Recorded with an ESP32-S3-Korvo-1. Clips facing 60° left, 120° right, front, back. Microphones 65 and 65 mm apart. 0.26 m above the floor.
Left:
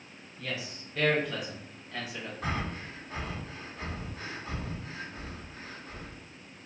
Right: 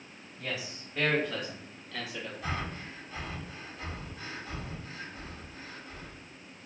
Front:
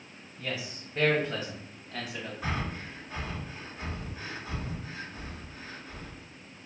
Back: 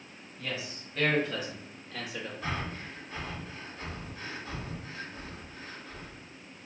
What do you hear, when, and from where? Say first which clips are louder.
0.4 s a man speaking: even, front 1 dB; 70° right, 1.2 m; by 2.3 s 15° left, 1.3 m
2.4 s breathing: left 3 dB, front 2 dB; 70° left, 1.1 m